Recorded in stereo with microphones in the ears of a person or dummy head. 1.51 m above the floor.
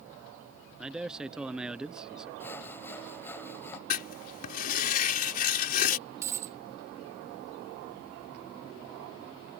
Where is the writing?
50° left (ahead or behind).